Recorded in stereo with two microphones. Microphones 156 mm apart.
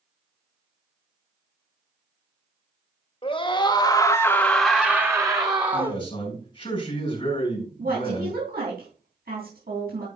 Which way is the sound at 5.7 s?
30° left (ahead or behind).